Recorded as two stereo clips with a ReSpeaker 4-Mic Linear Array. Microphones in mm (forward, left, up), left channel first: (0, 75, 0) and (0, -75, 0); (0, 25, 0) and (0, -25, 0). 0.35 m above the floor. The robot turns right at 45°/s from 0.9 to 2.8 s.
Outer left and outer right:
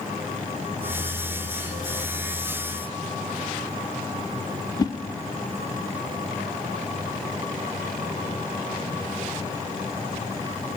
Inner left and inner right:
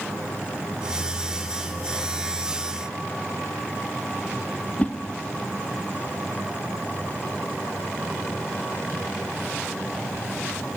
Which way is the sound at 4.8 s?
30° left (ahead or behind).